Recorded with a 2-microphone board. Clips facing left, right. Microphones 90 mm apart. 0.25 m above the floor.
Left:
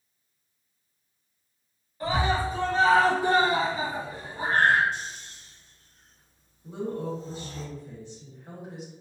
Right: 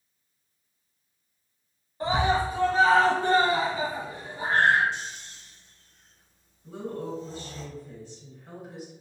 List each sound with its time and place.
2.0 s a scream: 25° right (ahead or behind), 1.1 m; by 4.8 s 50° left (ahead or behind), 1.5 m
4.9 s snoring: 45° left (ahead or behind), 1.4 m
6.6 s a woman speaking: 20° left (ahead or behind), 1.6 m